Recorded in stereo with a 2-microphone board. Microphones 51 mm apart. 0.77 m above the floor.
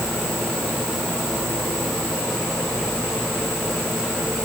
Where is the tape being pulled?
No tape being pulled in this recording.